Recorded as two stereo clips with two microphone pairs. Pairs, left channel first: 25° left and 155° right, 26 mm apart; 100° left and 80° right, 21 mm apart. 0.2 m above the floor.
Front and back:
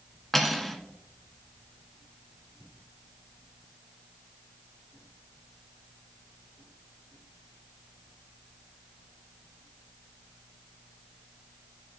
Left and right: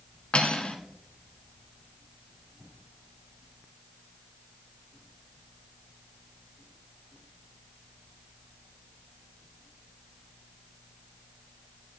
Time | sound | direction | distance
0.3 | cutlery clinking | 105° left | 1.2 m